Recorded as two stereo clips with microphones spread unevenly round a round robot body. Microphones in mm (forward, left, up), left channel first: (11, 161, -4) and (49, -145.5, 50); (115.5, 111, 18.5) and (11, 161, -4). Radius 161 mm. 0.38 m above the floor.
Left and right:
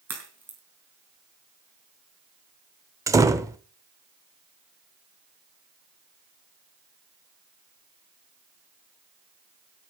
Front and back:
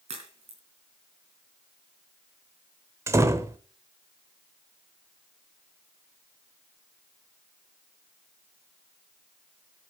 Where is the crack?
170° right, 4 m.